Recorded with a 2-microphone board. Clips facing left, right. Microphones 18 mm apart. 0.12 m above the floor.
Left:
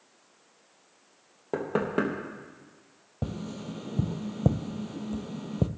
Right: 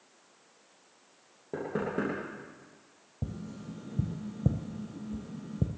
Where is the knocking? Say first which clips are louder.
Left 5 dB; 50° left (ahead or behind), 3.5 m.